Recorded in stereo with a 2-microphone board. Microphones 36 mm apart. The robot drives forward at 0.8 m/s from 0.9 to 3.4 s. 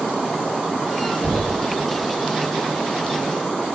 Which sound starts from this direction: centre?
Knocking, at 1.2 s.